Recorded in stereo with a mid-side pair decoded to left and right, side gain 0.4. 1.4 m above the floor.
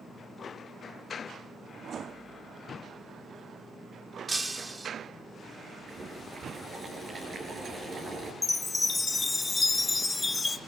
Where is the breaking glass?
20° right, 2 m.